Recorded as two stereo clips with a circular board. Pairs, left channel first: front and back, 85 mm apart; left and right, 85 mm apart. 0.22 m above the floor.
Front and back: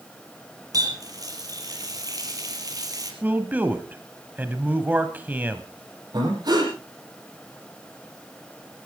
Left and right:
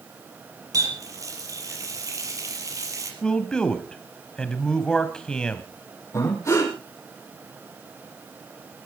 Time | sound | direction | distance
0.7 | a running tap | 135° right | 4 m
3.2 | a man speaking | 150° left | 1.2 m
6.1 | breathing | 140° left | 7 m